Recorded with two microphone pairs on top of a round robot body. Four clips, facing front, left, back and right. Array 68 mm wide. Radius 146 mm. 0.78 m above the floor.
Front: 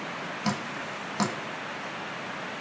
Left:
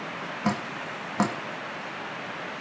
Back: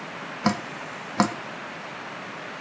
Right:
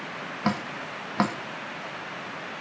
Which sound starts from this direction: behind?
Dripping, at 0.4 s.